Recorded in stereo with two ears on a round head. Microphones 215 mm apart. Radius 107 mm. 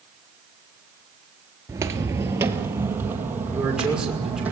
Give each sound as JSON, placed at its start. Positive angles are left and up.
{"t": 1.7, "sound": "footsteps", "side_deg": -15, "distance_m": 1.5}
{"t": 3.5, "sound": "a man speaking", "side_deg": -5, "distance_m": 6.0}